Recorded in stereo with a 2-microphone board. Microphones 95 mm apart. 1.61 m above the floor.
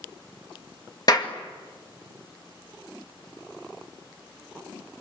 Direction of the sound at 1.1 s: 45° left (ahead or behind).